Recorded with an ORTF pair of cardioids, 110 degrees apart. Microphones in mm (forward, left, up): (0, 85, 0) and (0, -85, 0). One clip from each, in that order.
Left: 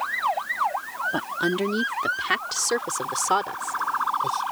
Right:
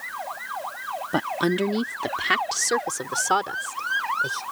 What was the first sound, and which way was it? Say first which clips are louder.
A woman speaking: right 4 dB; 30° right.